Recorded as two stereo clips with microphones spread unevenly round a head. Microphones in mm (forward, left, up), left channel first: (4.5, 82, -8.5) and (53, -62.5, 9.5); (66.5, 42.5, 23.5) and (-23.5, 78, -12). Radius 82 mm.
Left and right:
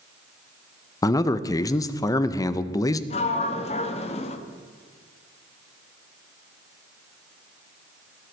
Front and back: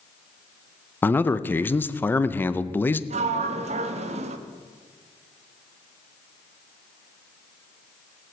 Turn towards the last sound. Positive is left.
turn(degrees=165)